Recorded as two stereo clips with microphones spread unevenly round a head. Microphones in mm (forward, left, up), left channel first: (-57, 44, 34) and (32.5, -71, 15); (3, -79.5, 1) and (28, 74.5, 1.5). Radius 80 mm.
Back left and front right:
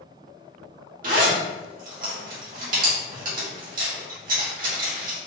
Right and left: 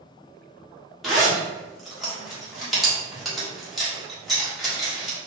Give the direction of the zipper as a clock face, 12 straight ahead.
12 o'clock.